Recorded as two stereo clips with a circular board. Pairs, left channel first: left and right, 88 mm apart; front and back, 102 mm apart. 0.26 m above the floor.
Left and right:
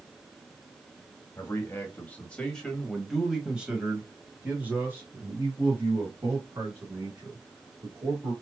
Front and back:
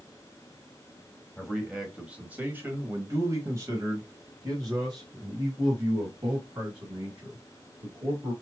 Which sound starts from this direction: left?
A man speaking, at 1.4 s.